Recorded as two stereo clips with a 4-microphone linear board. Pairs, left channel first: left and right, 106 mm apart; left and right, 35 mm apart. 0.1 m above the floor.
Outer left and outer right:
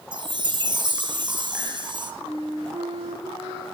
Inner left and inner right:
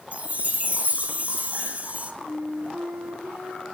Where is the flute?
60° right (ahead or behind), 3.5 m.